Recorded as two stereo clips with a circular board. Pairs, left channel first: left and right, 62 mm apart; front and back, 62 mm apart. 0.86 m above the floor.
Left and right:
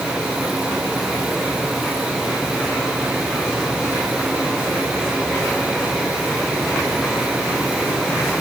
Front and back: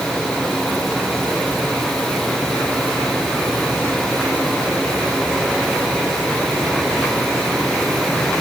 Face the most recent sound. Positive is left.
No sound to turn to.